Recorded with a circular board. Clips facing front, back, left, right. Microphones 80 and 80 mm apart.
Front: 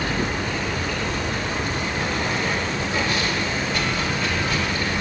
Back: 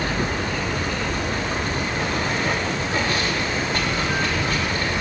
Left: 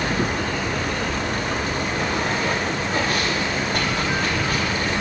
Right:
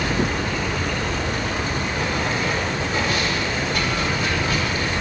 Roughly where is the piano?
I don't hear a piano.